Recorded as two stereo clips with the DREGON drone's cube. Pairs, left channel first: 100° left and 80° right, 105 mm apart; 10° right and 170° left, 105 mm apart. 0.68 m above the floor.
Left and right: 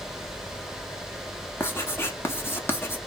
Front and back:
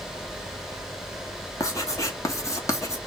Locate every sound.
1.6 s writing: 40° left, 1.1 m